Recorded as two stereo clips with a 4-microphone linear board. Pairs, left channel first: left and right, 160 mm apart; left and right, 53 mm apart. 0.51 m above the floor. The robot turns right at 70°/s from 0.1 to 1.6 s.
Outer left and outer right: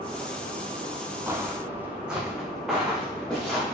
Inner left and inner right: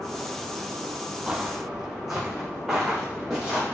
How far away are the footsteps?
About 0.6 m.